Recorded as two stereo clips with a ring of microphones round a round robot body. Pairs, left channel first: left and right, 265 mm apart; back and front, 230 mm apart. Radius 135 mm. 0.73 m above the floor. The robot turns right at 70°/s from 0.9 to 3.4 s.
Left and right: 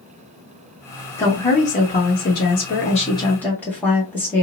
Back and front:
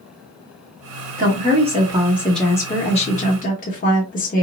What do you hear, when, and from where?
1.2 s a woman speaking: 15° left, 1.2 m; by 4.4 s 170° left, 1.2 m